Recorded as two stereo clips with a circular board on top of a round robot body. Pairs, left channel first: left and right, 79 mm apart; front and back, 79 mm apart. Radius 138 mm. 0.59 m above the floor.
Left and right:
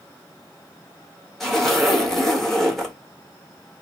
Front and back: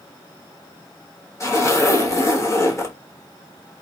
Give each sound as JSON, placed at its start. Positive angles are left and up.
{"t": 1.4, "sound": "a zipper", "azimuth_deg": 5, "distance_m": 1.4}